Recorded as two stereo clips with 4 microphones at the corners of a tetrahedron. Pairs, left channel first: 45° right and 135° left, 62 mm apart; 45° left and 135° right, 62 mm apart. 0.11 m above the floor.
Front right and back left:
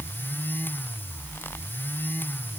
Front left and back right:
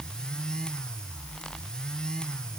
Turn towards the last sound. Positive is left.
No sound to turn to.